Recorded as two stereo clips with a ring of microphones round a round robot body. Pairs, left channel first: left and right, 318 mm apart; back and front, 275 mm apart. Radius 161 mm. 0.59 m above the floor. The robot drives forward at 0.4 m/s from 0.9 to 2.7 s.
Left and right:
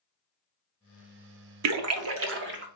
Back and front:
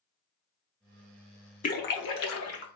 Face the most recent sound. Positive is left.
turn(degrees=-145)